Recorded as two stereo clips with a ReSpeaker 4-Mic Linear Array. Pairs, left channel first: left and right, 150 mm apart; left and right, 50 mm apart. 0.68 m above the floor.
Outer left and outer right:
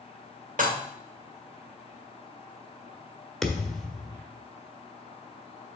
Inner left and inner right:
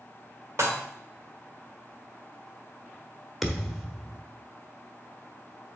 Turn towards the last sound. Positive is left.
turn(degrees=0)  # may be behind; listen again after turning